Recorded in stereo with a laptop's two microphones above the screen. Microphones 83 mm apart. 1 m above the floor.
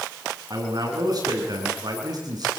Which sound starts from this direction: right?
A man speaking, at 0.5 s.